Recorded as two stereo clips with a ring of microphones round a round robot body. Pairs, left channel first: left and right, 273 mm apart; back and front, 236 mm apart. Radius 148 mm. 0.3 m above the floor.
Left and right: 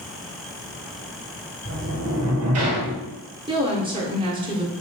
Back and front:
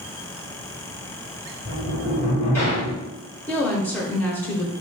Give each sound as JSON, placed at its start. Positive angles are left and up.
{"t": 1.6, "sound": "a sliding door", "azimuth_deg": -100, "distance_m": 1.6}
{"t": 3.5, "sound": "a woman speaking", "azimuth_deg": -115, "distance_m": 0.9}